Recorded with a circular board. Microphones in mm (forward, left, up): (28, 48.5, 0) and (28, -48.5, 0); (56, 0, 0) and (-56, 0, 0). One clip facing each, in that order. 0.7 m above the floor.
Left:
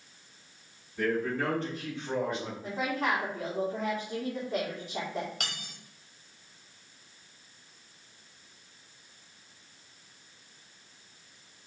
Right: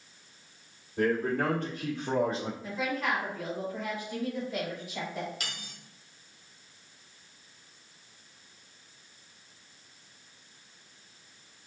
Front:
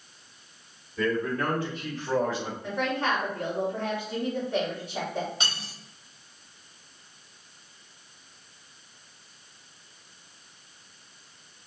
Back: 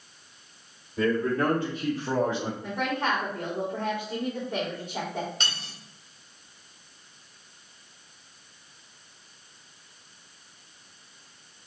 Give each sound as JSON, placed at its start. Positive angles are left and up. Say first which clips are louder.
{"t": 1.0, "sound": "a man speaking", "louder": "right 2 dB, back 3 dB", "azimuth_deg": -125, "distance_m": 1.6}
{"t": 2.6, "sound": "a woman speaking", "louder": "left 2 dB, front 2 dB", "azimuth_deg": 110, "distance_m": 2.0}
{"t": 5.4, "sound": "cutlery clinking", "louder": "left 2 dB, front 1 dB", "azimuth_deg": 75, "distance_m": 1.8}